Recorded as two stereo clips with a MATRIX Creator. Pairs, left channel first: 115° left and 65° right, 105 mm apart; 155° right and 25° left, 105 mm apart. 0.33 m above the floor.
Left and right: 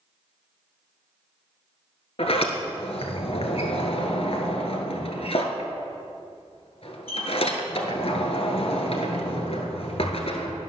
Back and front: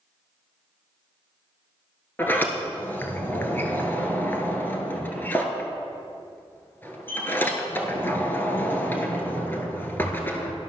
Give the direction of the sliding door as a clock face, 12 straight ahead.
8 o'clock.